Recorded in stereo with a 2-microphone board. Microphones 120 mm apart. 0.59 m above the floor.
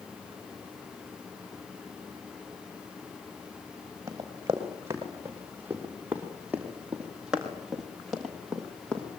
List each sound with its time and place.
4.1 s running footsteps: 30° right (ahead or behind), 7.5 m; by 9.1 s 10° left (ahead or behind), 6.5 m